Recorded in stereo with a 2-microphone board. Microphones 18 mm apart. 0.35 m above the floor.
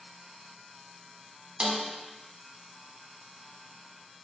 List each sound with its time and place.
1.6 s a snare drum: 85° right, 0.7 m